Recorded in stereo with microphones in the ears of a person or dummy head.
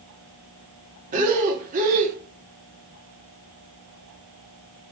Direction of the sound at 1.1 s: 40° right (ahead or behind).